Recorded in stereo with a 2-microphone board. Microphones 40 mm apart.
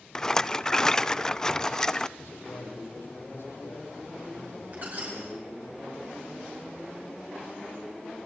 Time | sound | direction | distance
0.1 | a rattle | 15° left (ahead or behind) | 0.6 m
2.2 | a man speaking | 75° left (ahead or behind) | 7.5 m
4.7 | a squeak | 45° right (ahead or behind) | 5.5 m